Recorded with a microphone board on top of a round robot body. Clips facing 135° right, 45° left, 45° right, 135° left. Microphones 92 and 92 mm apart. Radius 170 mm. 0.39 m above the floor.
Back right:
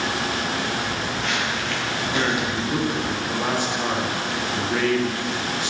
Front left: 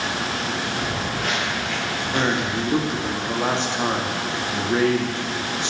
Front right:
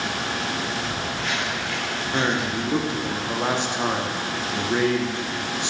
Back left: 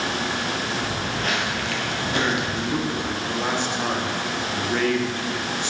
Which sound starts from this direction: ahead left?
Footsteps, at 0.8 s.